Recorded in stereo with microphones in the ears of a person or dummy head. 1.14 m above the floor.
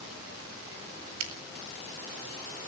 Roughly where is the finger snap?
Right.